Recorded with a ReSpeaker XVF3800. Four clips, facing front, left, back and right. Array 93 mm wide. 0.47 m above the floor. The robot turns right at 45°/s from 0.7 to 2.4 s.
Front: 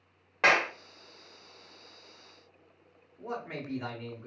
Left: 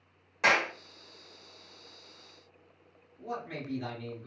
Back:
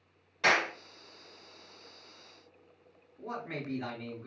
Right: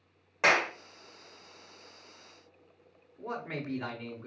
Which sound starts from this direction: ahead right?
A clap, at 0.4 s.